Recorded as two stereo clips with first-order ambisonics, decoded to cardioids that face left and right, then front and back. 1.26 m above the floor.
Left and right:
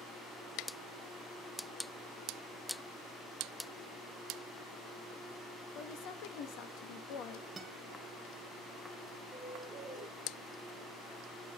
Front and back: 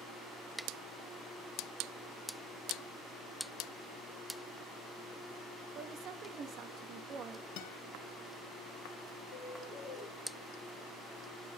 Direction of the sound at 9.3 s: Straight ahead.